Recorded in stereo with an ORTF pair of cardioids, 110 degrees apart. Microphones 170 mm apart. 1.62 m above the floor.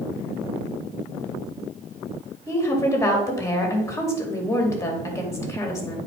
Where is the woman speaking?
15° left, 3 m.